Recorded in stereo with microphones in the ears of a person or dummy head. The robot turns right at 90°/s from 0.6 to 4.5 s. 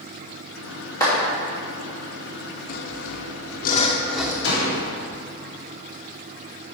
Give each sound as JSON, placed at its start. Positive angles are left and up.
{"t": 1.0, "sound": "a clap", "side_deg": 25, "distance_m": 2.5}
{"t": 2.7, "sound": "sawing", "azimuth_deg": 40, "distance_m": 0.7}
{"t": 4.4, "sound": "a door slam", "side_deg": 60, "distance_m": 2.5}